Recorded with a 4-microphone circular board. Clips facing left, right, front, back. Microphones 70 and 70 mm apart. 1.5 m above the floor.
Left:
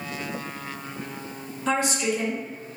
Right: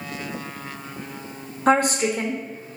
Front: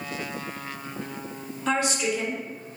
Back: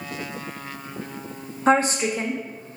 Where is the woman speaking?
130° right, 1.0 m.